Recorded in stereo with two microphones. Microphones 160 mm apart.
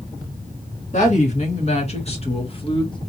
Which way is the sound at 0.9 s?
50° left (ahead or behind).